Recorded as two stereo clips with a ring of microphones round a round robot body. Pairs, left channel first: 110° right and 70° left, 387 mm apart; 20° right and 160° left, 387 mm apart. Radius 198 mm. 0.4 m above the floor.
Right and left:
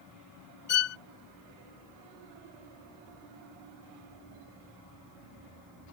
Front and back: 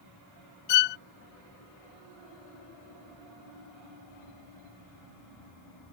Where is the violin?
50° right.